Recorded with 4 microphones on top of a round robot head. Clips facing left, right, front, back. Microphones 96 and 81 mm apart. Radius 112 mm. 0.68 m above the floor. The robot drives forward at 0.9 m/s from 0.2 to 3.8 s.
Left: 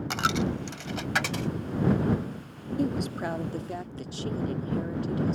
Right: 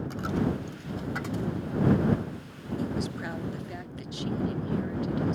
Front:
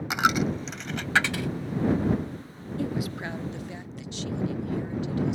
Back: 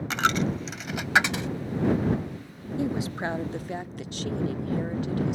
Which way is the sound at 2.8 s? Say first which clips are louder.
Left 4 dB, back 2 dB; 115° left.